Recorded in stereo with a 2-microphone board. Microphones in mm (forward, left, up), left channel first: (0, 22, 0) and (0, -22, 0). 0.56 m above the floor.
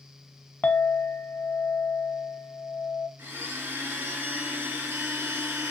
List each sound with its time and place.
0.6 s a clink: 45° left (ahead or behind), 0.7 m
3.2 s a blender: 70° right (ahead or behind), 1.8 m